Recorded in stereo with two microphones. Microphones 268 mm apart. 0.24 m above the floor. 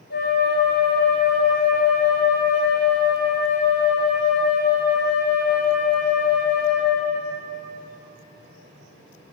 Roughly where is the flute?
Left.